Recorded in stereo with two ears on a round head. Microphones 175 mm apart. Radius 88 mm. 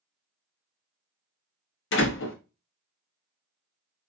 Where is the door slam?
65° left (ahead or behind), 0.8 m.